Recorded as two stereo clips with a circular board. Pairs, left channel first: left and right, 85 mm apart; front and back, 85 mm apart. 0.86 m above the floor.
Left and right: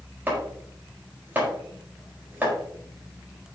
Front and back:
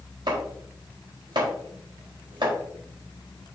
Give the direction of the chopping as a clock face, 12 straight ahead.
5 o'clock.